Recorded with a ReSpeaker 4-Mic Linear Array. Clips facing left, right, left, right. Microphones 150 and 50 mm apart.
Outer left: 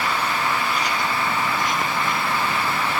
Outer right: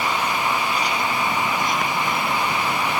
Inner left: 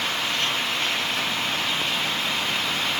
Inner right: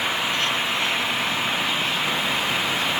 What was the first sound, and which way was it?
Only background noise.